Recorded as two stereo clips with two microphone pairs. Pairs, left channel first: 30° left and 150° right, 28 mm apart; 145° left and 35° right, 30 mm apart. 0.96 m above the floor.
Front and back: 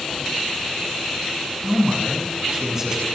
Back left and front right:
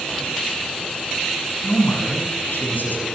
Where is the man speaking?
140° left, 6.5 m.